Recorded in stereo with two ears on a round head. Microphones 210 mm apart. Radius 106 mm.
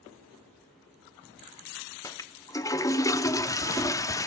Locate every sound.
2.0 s a toilet flushing: 15° left (ahead or behind), 0.6 m